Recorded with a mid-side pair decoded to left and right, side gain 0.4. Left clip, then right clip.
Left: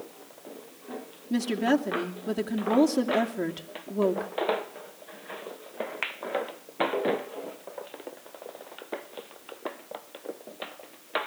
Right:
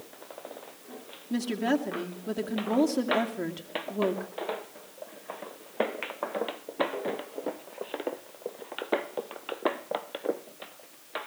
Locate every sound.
1.3 s a woman speaking: 25° left, 2.5 m